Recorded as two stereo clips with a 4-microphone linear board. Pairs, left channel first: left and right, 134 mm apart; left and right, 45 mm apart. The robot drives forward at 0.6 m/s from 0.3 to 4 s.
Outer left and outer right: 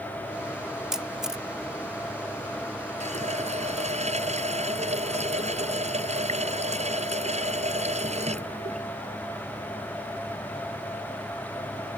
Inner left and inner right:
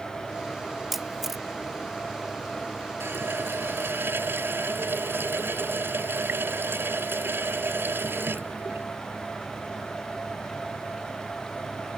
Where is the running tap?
60° right (ahead or behind); by 8.9 s 55° right (ahead or behind).